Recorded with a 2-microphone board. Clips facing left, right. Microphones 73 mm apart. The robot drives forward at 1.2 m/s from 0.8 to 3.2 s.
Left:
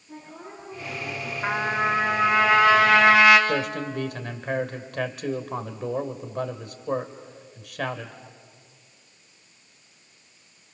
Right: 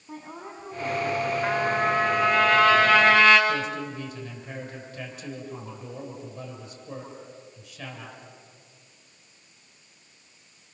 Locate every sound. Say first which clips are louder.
0.1 s a woman speaking: right 2 dB; 70° right (ahead or behind), 5.5 m; by 1.3 s 80° right, 5 m
1.4 s a trumpet: left 2 dB; 15° left (ahead or behind), 2.5 m; by 3.4 s 10° left (ahead or behind), 4.5 m
3.5 s a man speaking: left 2 dB; 70° left (ahead or behind), 2.5 m